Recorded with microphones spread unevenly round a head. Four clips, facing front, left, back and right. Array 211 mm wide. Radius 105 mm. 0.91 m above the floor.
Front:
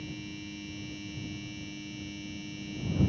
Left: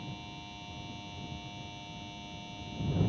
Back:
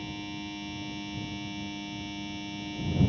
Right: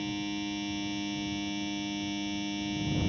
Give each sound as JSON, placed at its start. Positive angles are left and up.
{"t": 0.0, "sound": "a machine running", "azimuth_deg": -105}